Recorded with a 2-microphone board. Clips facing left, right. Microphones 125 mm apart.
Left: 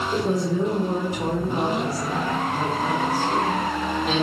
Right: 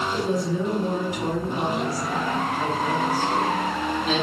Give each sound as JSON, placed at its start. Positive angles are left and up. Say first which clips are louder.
{"t": 0.1, "sound": "a woman speaking", "louder": "left 4 dB", "side_deg": 45, "distance_m": 1.0}